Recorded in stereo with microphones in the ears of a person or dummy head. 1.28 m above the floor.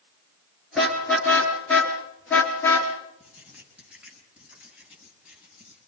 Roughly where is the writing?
Centre.